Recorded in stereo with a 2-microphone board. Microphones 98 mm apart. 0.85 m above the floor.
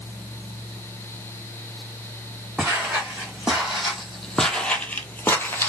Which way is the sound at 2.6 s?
10° right (ahead or behind).